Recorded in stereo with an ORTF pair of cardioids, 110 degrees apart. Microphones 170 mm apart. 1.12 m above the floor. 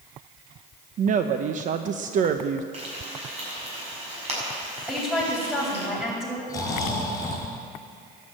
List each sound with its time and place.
1.0 s a woman speaking: 50° right, 0.8 m
2.7 s frying: 40° right, 6.5 m
4.9 s a woman speaking: 5° right, 6.5 m
6.5 s snoring: 20° left, 4.5 m